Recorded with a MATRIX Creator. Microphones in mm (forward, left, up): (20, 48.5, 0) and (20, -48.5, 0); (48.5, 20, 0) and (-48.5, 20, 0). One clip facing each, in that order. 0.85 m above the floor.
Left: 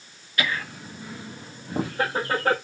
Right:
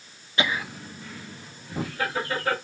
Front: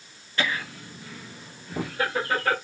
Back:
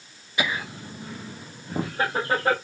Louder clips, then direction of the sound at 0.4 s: Right 1 dB, back 1 dB; 115° right.